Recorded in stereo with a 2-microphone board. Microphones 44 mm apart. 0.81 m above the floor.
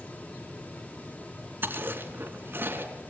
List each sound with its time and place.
1.6 s chewing: 55° right (ahead or behind), 3 m